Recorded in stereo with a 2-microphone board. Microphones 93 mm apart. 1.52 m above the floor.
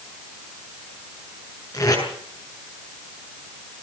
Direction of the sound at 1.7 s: 40° left (ahead or behind).